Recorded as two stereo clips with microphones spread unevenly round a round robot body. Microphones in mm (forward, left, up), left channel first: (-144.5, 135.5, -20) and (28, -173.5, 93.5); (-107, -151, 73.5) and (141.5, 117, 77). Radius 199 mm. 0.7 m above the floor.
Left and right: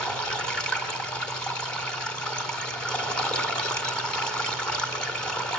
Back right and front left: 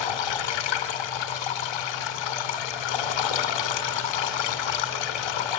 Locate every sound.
0.0 s running water: 150° right, 2.5 m